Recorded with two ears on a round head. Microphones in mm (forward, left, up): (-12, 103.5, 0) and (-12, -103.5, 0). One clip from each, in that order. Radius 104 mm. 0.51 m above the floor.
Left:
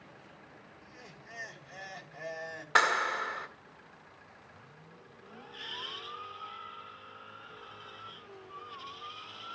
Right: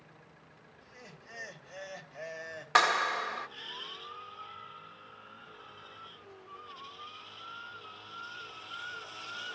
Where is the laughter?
30° right (ahead or behind), 2.5 m.